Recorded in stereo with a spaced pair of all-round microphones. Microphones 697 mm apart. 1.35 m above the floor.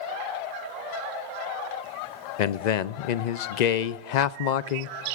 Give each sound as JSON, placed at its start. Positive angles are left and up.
{"t": 2.4, "sound": "a man speaking", "side_deg": 75, "distance_m": 0.6}